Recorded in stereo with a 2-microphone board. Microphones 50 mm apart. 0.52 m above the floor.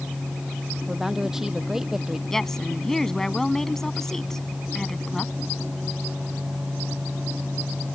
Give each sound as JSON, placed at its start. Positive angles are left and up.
{"t": 0.9, "sound": "a woman speaking", "side_deg": -10}
{"t": 2.3, "sound": "a woman speaking", "side_deg": 10}